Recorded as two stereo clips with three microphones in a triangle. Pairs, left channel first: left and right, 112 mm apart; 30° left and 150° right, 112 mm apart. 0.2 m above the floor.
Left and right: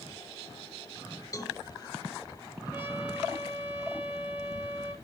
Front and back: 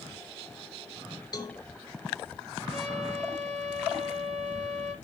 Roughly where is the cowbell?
Ahead left.